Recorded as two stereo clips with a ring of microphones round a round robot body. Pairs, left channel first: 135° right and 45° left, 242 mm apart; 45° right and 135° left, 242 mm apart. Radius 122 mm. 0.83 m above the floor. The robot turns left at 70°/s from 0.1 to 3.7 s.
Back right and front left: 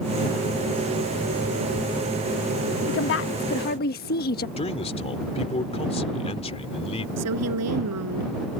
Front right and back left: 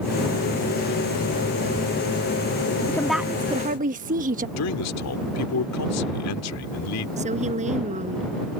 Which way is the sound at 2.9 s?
120° right.